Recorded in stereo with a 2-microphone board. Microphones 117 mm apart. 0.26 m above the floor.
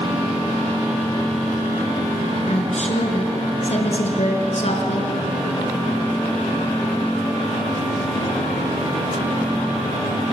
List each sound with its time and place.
2.5 s a woman speaking: 60° left (ahead or behind), 4.5 m